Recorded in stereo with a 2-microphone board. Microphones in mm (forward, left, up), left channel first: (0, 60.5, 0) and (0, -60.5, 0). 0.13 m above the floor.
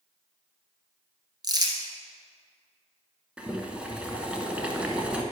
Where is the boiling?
10° right (ahead or behind), 1.1 m.